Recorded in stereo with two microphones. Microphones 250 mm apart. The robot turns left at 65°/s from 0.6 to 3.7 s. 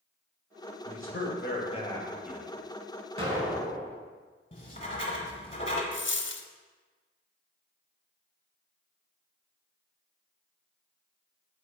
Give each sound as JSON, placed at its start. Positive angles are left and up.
{"t": 0.8, "sound": "a man speaking", "azimuth_deg": 85, "distance_m": 1.5}
{"t": 3.2, "sound": "an explosion", "azimuth_deg": -155, "distance_m": 1.3}
{"t": 4.5, "sound": "writing", "side_deg": 25, "distance_m": 1.0}
{"t": 5.9, "sound": "a dropped coin", "side_deg": 50, "distance_m": 0.5}